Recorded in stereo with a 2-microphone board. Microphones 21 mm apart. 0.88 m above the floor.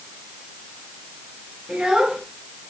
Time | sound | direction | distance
1.7 | a child speaking | 40° right (ahead or behind) | 8.5 m